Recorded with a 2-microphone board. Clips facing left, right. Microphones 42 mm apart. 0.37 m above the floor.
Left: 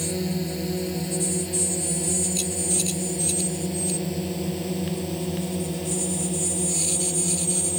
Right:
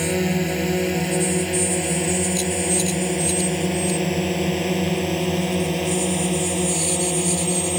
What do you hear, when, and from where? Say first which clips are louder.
0.0 s a drone: right 6 dB; 60° right (ahead or behind)